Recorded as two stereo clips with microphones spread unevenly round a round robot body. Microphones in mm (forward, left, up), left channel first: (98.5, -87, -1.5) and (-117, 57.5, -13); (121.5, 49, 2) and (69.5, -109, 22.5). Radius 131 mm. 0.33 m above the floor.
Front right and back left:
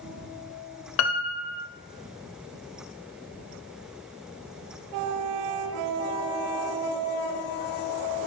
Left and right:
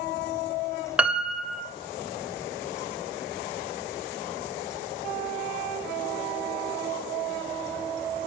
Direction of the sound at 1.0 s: 20° right.